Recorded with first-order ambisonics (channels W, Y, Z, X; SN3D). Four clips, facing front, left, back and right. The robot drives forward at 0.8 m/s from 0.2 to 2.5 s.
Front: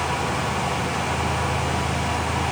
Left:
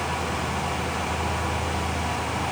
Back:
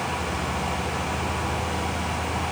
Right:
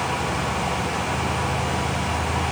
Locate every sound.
Only background noise.